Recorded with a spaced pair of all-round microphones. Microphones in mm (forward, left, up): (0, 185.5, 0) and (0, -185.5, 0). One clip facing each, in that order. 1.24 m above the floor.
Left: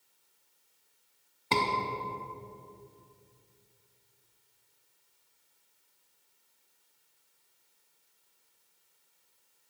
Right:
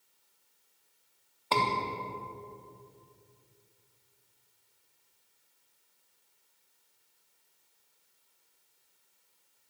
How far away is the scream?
About 3 m.